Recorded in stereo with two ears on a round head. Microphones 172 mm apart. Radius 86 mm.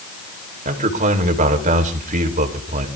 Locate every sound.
0.7 s a man speaking: 40° right (ahead or behind), 4 m